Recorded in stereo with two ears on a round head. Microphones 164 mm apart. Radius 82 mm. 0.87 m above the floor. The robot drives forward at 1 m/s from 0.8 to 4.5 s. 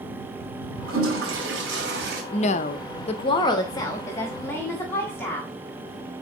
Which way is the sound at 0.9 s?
85° right.